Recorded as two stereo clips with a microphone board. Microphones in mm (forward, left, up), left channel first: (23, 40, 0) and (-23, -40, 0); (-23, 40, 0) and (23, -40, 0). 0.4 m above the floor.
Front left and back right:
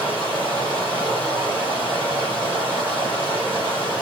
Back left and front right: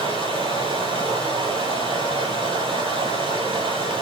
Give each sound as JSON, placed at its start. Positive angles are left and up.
{"t": 0.0, "sound": "running water", "azimuth_deg": -50, "distance_m": 8.5}